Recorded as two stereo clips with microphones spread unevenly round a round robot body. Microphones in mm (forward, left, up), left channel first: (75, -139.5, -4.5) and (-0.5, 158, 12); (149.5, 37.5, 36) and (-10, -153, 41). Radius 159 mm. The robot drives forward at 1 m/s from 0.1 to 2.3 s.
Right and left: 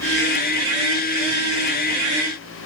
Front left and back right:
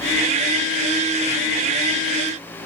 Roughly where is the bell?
I don't hear a bell.